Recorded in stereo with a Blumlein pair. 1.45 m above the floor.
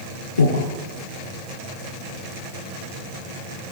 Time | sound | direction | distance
0.4 | breathing | 70° left | 4 m